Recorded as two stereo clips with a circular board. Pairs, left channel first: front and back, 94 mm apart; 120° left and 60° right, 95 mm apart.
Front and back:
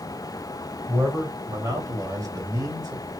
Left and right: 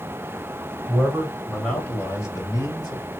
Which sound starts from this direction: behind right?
A man speaking, at 0.9 s.